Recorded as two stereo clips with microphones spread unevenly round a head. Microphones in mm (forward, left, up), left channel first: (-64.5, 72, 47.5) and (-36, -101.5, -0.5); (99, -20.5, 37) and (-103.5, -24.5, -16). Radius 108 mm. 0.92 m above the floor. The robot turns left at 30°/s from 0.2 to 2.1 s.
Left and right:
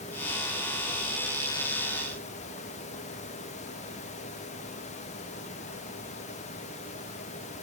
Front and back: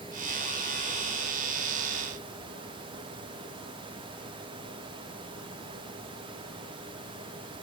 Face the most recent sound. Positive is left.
No sound to turn to.